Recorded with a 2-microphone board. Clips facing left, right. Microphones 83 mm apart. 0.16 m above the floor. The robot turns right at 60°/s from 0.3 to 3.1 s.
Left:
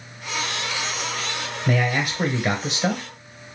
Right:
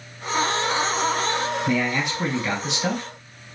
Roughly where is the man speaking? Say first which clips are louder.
Even; ahead left.